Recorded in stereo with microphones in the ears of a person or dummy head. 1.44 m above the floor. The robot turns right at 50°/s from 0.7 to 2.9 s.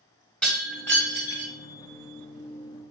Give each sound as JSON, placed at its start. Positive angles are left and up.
{"t": 0.4, "sound": "breaking glass", "azimuth_deg": 0, "distance_m": 2.0}